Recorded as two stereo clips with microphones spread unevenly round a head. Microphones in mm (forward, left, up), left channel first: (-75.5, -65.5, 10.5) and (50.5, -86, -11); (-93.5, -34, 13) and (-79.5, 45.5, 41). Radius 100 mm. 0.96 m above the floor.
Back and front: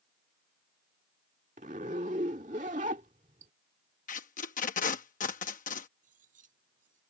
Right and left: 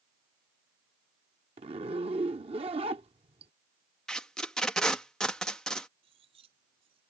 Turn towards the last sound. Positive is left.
turn(degrees=45)